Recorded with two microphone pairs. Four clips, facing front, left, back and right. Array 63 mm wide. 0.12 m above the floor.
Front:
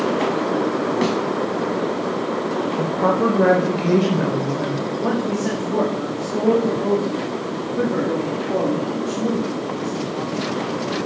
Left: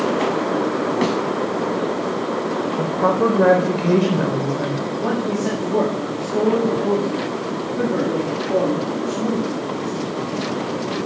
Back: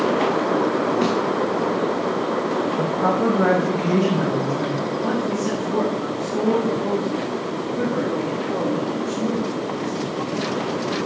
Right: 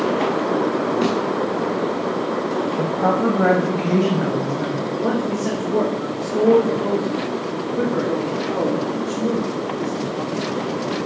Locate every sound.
1.0 s a thud: 50° left, 6.5 m
2.8 s a woman speaking: 40° left, 4.5 m
4.9 s a man speaking: 15° left, 7 m